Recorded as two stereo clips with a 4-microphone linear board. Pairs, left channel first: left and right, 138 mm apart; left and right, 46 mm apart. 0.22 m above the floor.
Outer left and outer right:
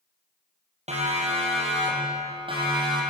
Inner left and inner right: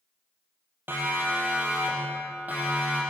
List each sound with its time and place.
0.9 s a siren: 55° right (ahead or behind), 6 m; by 3.0 s 35° right (ahead or behind), 8 m